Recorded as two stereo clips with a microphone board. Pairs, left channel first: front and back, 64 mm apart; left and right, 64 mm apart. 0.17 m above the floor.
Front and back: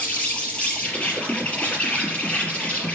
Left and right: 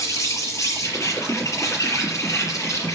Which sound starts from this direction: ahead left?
An insect, at 0.0 s.